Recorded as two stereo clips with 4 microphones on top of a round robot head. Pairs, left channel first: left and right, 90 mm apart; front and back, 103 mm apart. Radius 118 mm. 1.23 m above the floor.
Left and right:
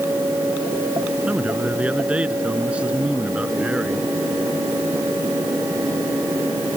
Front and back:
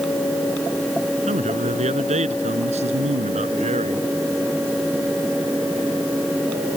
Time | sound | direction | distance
1.3 | a man speaking | 170° right | ?